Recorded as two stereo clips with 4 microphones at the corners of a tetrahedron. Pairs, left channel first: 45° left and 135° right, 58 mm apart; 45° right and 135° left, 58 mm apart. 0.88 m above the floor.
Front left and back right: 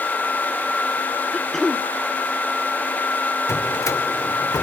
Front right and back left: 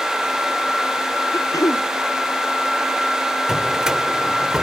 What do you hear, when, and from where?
1.3 s throat clearing: 40° right
3.5 s a drawer: 55° left